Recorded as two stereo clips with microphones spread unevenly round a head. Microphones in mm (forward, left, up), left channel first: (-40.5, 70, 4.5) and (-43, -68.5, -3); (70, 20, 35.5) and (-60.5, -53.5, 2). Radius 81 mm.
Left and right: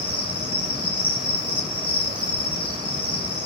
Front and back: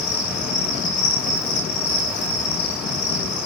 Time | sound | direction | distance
0.0 | an insect | 5° right | 8 m